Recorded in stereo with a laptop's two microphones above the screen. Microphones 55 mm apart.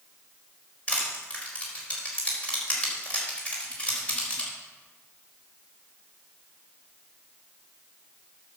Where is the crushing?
25° left (ahead or behind), 4.5 m.